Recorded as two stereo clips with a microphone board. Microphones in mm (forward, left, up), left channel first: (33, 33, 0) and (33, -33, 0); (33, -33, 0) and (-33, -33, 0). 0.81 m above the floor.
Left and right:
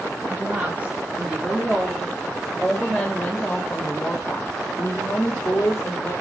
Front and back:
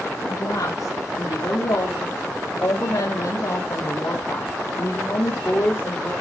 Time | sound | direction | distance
0.3 | a woman speaking | 30° right | 2.5 m